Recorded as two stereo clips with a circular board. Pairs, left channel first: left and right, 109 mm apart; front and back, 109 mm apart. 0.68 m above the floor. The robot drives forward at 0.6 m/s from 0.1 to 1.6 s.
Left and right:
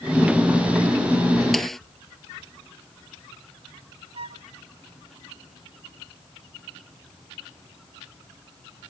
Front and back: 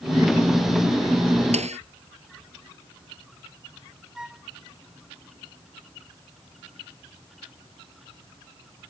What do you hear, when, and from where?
1.5 s a snare drum: 175° left
4.2 s a flute: 95° right